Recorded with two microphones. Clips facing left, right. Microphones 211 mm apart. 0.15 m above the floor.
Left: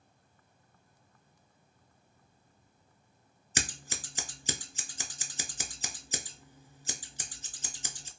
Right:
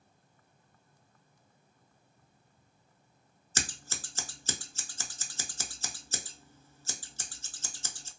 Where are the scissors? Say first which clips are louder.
Left 2 dB; 15° left (ahead or behind), 0.5 m.